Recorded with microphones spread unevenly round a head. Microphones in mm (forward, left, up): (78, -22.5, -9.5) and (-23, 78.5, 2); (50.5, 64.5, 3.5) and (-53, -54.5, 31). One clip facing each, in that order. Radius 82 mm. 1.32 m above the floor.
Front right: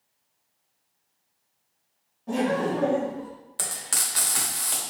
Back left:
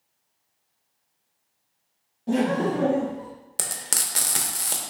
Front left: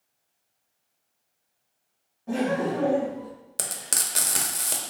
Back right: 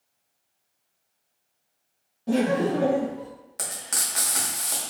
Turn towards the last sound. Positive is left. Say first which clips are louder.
# back left 1 dB, even
turn(degrees=95)